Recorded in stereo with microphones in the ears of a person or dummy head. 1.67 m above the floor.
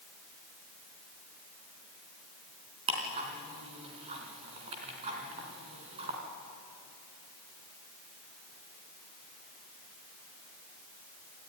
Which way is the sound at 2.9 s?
35° right (ahead or behind).